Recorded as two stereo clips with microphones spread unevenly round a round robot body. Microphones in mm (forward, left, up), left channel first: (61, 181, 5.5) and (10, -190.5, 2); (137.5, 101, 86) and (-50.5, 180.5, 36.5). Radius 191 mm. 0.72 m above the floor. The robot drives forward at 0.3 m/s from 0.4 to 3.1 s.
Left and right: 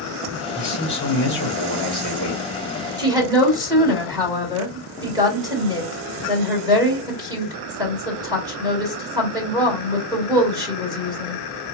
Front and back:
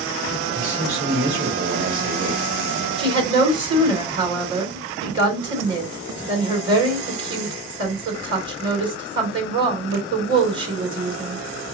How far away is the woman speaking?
About 2.5 m.